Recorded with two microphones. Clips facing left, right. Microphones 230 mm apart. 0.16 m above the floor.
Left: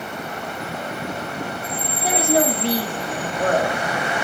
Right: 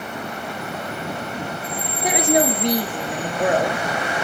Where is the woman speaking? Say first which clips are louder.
Right 1 dB; 15° right (ahead or behind), 2.5 m.